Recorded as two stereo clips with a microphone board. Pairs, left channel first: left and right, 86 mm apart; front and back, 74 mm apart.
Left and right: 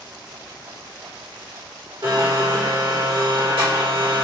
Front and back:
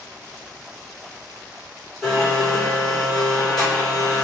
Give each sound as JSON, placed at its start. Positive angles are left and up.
{"t": 2.0, "sound": "a blender", "azimuth_deg": -85, "distance_m": 1.8}